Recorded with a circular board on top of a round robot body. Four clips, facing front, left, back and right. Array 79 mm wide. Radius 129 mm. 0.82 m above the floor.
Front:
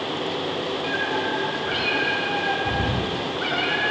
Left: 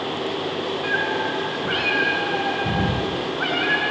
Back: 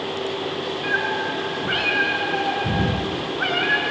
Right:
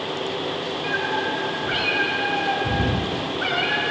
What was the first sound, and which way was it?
A cat meowing, 145° left.